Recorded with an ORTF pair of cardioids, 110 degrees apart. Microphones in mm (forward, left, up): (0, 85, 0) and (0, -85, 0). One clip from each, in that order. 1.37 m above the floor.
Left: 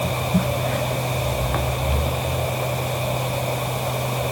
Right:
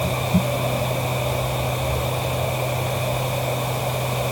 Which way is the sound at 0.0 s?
Straight ahead.